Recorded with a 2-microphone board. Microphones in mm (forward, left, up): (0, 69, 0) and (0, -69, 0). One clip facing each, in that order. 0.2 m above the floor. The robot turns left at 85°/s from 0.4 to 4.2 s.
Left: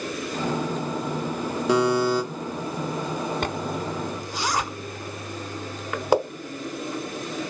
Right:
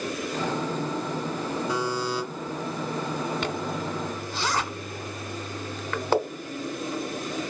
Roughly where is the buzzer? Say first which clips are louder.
Left 11 dB; left.